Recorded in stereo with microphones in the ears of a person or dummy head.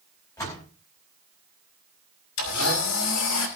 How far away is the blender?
About 5 m.